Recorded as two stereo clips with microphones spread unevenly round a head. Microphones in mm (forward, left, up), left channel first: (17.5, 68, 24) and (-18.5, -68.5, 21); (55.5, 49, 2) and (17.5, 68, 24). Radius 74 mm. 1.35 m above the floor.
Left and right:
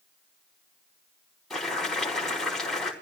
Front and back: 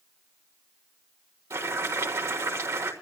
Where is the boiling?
160° left, 4 m.